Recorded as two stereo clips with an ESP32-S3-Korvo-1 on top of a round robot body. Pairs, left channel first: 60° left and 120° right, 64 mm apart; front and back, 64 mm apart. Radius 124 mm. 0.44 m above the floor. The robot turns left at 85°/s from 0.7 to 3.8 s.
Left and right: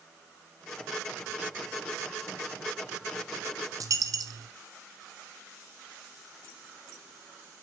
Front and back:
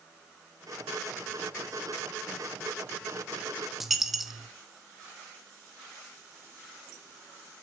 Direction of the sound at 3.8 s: 95° right.